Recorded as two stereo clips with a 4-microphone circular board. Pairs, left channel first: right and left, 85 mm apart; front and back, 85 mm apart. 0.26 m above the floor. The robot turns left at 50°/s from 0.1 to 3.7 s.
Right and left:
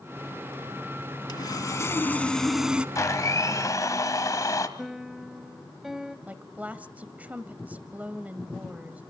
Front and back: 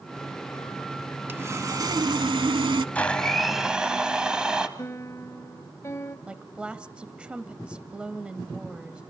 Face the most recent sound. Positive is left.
turn(degrees=125)